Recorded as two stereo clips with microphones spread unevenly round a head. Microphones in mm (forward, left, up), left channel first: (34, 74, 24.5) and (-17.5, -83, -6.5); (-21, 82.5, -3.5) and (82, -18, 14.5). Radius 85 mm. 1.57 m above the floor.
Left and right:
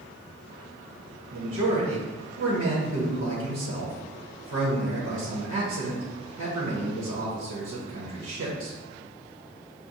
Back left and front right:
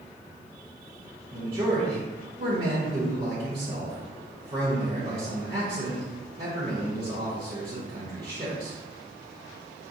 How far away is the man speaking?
About 1.0 m.